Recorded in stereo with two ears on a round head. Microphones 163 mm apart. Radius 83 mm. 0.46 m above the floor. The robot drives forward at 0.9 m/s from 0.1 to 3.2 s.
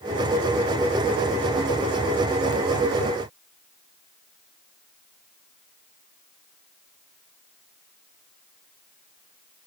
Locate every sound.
Only background noise.